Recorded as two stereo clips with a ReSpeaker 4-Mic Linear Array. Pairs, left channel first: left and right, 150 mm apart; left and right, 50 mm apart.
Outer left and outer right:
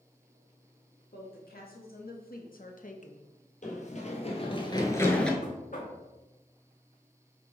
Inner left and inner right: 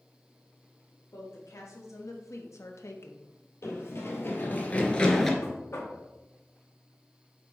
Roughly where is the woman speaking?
Left.